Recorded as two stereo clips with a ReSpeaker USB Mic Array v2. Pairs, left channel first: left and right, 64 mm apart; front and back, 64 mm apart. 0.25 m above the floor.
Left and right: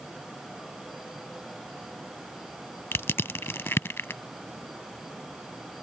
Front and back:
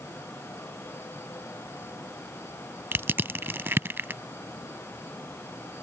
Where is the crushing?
135° left.